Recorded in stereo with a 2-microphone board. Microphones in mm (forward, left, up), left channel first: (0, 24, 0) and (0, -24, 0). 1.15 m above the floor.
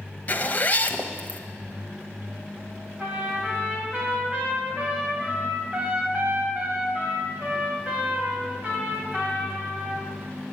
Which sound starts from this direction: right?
A trumpet, at 3.0 s.